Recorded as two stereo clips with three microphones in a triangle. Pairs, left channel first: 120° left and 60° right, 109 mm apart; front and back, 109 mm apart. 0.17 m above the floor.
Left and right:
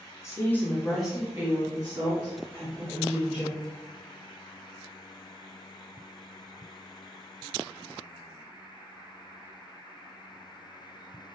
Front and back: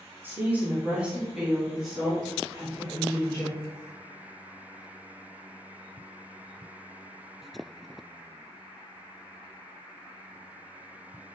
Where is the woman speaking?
130° left, 1.5 m; by 3.6 s 80° right, 3 m.